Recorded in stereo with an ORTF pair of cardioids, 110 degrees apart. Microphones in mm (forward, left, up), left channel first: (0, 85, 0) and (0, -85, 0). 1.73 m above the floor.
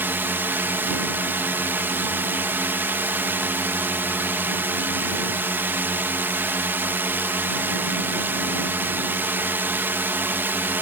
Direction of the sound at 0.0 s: 15° right.